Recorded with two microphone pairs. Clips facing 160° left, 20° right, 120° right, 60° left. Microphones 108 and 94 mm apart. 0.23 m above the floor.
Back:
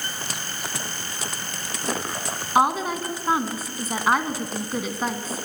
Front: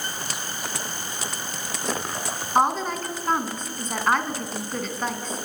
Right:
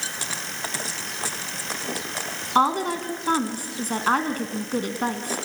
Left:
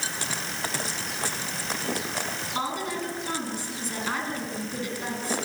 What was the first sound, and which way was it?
A woman speaking, 120° right.